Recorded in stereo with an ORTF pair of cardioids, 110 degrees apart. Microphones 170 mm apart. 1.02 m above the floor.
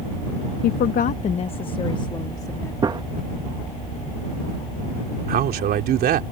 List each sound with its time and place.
0.6 s a woman speaking: 65° left; by 2.7 s 20° left
2.8 s a gunshot: 25° right
5.3 s a man speaking: 60° right